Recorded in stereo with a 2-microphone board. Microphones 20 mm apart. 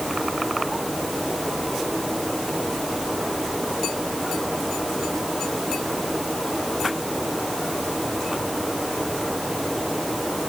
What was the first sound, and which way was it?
Only background noise.